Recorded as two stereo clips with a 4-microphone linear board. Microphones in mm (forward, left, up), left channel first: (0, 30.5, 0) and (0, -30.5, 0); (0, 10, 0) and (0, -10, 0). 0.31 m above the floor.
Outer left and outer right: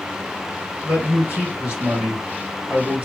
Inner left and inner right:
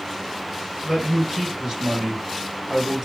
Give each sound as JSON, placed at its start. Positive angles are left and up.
{"t": 0.8, "sound": "a man speaking", "side_deg": -15, "distance_m": 1.9}